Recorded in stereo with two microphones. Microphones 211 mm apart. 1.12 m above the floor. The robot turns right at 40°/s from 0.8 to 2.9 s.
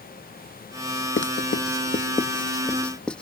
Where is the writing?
60° left (ahead or behind); by 3.2 s 5° left (ahead or behind).